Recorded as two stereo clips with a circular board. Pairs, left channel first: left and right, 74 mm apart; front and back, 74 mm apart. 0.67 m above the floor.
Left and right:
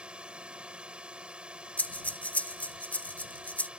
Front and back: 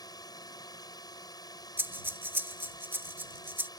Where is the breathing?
145° left.